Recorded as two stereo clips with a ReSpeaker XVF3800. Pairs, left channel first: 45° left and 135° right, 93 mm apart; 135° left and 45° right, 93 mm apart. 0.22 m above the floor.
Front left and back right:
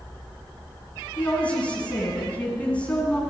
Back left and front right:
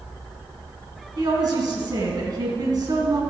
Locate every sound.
1.2 s a woman speaking: 25° right, 2.5 m